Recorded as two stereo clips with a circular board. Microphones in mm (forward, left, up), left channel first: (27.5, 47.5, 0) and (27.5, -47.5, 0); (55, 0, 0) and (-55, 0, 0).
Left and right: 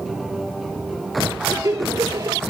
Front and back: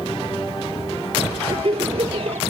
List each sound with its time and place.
1.5 s laughter: 150° right